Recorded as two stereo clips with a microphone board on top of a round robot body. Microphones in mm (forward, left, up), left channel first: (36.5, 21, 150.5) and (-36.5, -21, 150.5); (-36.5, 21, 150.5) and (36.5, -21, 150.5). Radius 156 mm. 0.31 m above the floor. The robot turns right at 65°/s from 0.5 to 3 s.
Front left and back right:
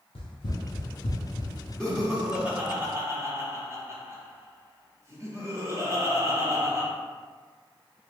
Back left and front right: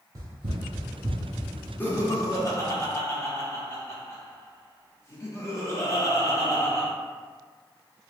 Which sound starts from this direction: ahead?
Running footsteps, at 0.1 s.